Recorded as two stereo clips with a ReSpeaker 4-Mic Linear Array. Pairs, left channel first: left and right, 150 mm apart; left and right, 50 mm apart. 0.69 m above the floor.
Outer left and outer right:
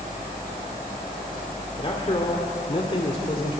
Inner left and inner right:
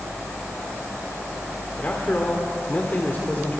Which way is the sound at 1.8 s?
40° left (ahead or behind).